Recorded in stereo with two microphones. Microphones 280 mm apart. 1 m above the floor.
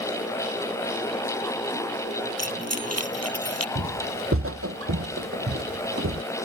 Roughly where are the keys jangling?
Right.